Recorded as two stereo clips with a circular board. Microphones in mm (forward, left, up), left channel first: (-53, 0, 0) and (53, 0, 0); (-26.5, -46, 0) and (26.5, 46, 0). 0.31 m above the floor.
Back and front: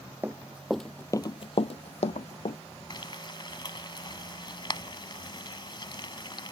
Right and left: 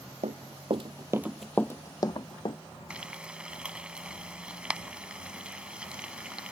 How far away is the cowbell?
No cowbell in this recording.